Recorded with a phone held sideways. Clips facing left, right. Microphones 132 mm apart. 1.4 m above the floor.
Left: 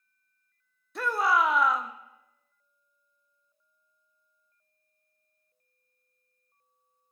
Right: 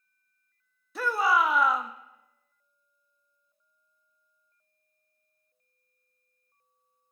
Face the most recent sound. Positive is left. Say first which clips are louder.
# right 1 dB
turn(degrees=0)  # may be behind; listen again after turning